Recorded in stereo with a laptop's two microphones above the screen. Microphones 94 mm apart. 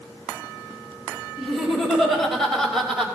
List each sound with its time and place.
1.4 s laughter: centre (ahead or behind), 5.5 m; by 3.1 s 5° left (ahead or behind), 4.5 m